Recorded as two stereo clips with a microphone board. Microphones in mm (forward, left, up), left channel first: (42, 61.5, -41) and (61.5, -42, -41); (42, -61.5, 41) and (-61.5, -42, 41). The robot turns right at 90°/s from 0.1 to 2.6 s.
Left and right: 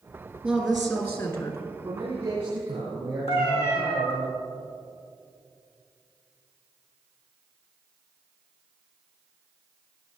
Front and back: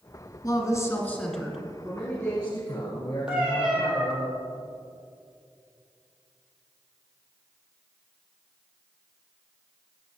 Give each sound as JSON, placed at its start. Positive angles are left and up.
{"t": 0.4, "sound": "a woman speaking", "azimuth_deg": -20, "distance_m": 1.8}
{"t": 1.8, "sound": "a man speaking", "azimuth_deg": -105, "distance_m": 3.5}
{"t": 3.3, "sound": "a cat meowing", "azimuth_deg": 90, "distance_m": 2.5}